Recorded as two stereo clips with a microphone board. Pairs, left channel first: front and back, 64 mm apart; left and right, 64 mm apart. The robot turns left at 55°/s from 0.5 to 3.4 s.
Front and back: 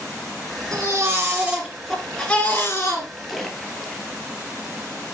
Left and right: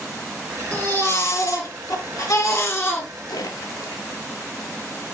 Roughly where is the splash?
Left.